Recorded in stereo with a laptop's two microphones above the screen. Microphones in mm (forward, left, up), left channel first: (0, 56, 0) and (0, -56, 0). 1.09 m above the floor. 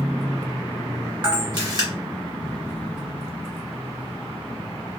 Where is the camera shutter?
40° right (ahead or behind), 1.1 m.